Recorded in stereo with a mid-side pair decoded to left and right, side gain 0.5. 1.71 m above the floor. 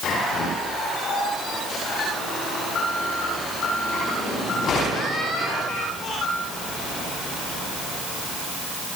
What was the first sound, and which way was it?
Only background noise.